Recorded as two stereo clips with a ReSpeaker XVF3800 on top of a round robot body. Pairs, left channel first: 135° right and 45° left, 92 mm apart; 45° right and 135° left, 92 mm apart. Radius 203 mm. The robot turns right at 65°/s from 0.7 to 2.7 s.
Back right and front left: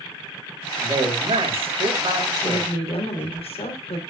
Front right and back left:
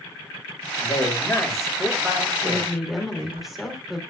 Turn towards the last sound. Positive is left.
turn(degrees=-135)